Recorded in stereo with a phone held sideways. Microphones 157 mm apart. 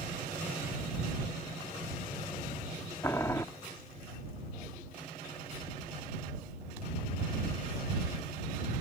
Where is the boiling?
20° left (ahead or behind).